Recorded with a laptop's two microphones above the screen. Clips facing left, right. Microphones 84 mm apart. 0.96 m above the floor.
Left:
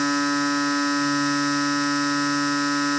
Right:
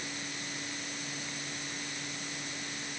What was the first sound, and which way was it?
A machine running, 85° left.